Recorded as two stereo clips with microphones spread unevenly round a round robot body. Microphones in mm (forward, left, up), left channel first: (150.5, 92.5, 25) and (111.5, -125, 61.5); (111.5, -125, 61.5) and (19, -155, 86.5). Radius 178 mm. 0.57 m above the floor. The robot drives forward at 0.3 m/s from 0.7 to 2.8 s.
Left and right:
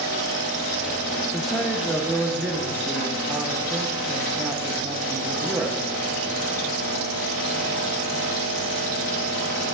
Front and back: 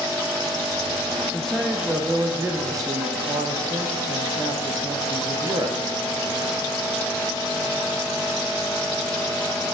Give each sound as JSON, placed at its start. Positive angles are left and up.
{"t": 1.3, "sound": "a man speaking", "azimuth_deg": 15, "distance_m": 0.6}